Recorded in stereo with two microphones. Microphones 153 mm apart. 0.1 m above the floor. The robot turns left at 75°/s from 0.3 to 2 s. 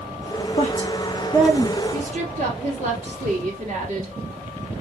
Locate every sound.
0.6 s a woman speaking: 55° left (ahead or behind), 3 m; by 1.8 s 25° right (ahead or behind), 3 m
1.9 s a woman speaking: 45° right (ahead or behind), 2.0 m; by 4.1 s 50° right (ahead or behind), 2.0 m